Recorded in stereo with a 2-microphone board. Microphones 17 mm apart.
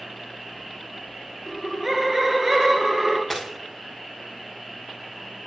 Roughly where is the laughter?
Right.